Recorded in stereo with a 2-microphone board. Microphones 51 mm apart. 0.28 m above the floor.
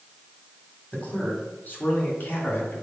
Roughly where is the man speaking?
Left.